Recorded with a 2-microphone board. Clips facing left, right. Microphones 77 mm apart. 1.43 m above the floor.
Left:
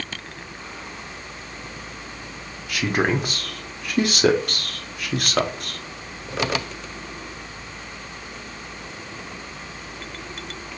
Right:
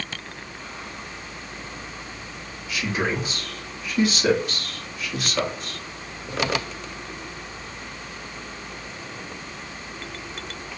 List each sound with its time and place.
2.7 s a man speaking: 55° left (ahead or behind), 0.9 m